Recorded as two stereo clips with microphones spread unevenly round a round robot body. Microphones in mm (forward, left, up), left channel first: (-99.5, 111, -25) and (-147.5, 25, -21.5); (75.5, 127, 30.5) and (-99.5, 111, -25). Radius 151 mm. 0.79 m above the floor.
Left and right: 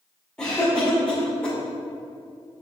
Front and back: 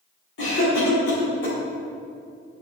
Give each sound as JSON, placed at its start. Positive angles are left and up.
{"t": 0.4, "sound": "a cough", "azimuth_deg": -25, "distance_m": 1.7}